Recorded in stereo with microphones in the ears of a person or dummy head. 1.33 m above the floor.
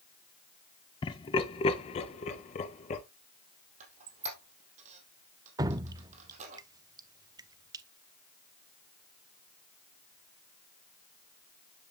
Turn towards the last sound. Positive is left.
turn(degrees=-20)  # may be behind; listen again after turning